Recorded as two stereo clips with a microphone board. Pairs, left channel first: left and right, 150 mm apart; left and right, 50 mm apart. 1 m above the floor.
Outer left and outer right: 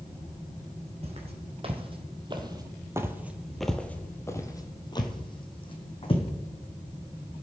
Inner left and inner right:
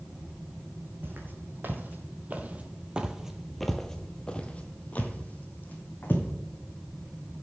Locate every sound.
1.0 s footsteps: 45° right (ahead or behind), 1.9 m; by 6.3 s 40° left (ahead or behind), 2 m